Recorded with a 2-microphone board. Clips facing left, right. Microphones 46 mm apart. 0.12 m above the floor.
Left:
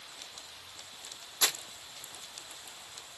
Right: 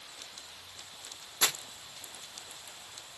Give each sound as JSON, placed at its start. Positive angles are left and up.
{"t": 1.4, "sound": "crumpling", "side_deg": -35, "distance_m": 1.1}